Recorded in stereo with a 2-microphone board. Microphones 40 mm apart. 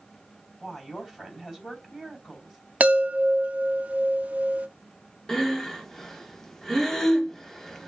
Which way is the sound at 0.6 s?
Centre (ahead or behind).